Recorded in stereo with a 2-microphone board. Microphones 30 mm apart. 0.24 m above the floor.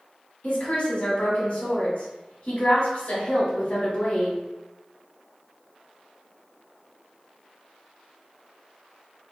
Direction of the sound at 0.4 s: 50° left (ahead or behind).